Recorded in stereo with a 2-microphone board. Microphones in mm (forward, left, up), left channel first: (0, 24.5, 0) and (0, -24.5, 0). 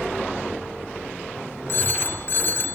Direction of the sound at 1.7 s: 50° left (ahead or behind).